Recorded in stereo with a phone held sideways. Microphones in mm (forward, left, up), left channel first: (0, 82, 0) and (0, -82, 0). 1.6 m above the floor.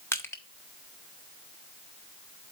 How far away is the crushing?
About 0.9 m.